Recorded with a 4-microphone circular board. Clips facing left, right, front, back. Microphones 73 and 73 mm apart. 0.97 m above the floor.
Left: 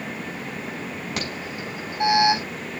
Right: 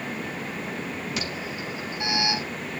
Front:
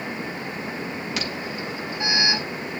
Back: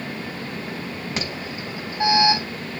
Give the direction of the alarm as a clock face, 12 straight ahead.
8 o'clock.